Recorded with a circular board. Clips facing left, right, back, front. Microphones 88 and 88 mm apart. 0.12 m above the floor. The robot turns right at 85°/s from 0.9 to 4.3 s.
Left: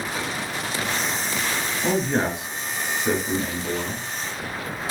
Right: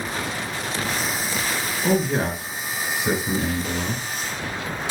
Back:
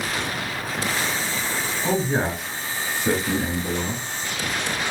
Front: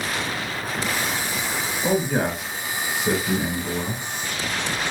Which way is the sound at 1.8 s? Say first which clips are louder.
Right 1 dB, front 1 dB; 90° left.